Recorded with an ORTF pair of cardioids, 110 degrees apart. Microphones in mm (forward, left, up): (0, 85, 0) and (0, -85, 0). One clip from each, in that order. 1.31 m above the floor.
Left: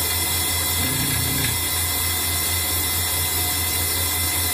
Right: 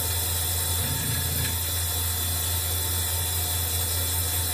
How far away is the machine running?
About 3.5 m.